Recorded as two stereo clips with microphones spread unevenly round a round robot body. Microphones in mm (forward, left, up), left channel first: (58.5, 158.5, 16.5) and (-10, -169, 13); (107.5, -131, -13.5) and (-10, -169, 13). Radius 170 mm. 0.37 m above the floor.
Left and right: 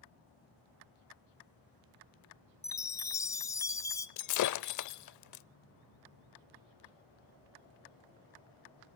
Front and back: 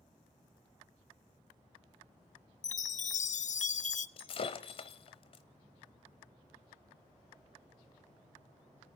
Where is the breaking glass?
50° left, 0.7 m.